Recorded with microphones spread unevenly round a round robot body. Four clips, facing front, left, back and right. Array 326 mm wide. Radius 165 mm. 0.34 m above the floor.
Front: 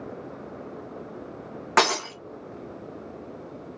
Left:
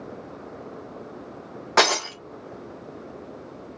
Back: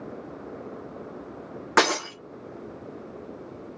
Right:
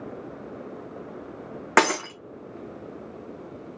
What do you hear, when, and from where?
1.8 s breaking glass: 120° right, 1.3 m